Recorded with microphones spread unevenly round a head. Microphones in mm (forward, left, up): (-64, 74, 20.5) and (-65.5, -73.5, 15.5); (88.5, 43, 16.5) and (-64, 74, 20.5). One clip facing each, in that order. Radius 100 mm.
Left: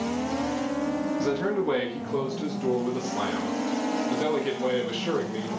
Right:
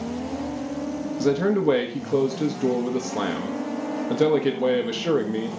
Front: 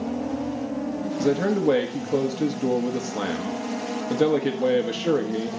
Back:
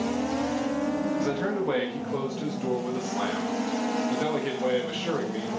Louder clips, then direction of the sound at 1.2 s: Right 9 dB, front 6 dB; 60° right.